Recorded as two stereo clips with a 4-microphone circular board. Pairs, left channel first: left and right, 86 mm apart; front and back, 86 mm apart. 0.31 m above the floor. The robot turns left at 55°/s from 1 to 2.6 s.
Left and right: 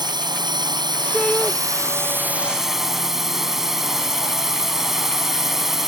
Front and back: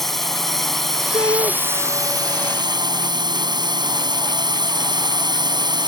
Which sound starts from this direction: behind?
A shout, at 1.1 s.